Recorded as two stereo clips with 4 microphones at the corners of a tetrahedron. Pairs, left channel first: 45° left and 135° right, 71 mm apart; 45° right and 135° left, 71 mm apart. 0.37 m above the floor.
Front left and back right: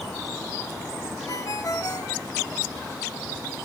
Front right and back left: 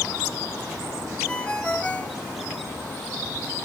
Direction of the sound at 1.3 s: 25° left.